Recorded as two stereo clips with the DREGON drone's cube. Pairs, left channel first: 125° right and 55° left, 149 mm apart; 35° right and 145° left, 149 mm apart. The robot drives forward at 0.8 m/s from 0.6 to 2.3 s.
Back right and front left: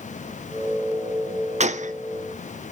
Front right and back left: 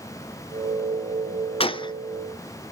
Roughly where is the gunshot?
Ahead.